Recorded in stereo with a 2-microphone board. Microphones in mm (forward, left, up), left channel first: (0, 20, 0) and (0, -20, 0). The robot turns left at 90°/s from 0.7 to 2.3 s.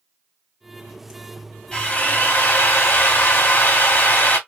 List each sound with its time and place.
1.7 s a drill: 160° left, 1.6 m; by 4.4 s 105° left, 1.6 m